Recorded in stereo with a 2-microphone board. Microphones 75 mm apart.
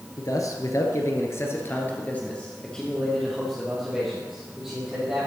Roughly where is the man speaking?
Left.